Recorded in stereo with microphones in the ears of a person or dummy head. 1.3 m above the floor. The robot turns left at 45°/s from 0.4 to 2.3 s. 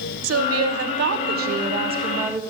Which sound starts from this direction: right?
A woman speaking, at 0.2 s.